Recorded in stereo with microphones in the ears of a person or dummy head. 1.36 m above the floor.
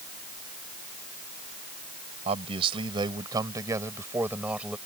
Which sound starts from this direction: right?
A man speaking, at 2.2 s.